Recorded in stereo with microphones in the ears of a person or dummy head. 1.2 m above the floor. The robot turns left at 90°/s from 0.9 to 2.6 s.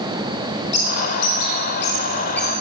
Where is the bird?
40° left (ahead or behind), 5 m; by 2.5 s 5° right (ahead or behind), 5 m.